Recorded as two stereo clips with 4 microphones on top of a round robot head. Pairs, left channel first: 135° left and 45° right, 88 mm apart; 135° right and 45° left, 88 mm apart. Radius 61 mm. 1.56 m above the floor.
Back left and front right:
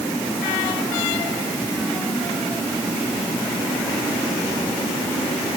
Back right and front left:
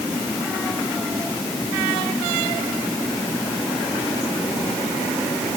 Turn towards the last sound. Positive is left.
No sound to turn to.